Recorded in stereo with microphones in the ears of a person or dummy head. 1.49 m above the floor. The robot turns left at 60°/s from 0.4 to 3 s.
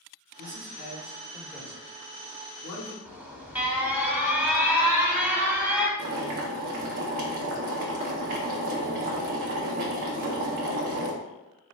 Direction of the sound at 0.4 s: 70° right (ahead or behind).